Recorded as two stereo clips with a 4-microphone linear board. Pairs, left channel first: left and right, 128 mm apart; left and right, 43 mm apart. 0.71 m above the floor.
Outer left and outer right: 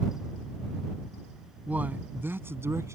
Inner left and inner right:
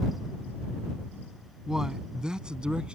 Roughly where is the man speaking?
Centre.